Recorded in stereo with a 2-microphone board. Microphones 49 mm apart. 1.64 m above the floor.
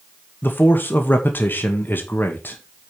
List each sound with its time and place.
0.4 s a man speaking: 40° left (ahead or behind), 1.9 m